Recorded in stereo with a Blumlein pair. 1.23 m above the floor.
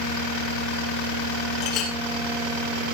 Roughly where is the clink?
Ahead left.